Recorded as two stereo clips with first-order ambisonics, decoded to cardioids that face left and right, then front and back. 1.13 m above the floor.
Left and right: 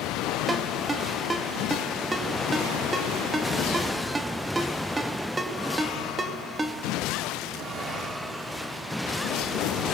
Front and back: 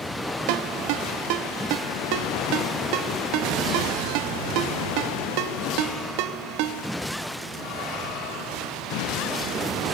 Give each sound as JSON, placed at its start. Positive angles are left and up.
{"t": 0.5, "sound": "a ringtone", "azimuth_deg": -165, "distance_m": 1.4}